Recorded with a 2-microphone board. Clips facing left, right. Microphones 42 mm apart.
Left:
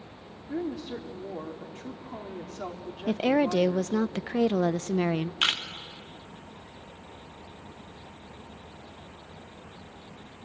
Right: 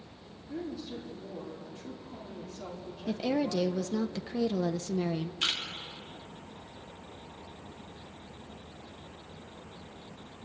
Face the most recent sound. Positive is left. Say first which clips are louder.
# left 6 dB
turn(degrees=55)  # may be behind; listen again after turning